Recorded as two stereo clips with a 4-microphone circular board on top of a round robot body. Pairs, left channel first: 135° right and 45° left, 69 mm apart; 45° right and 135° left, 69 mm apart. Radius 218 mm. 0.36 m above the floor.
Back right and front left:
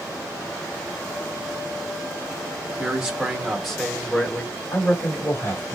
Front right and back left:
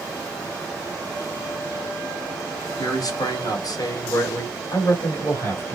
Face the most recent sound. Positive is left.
turn(degrees=-95)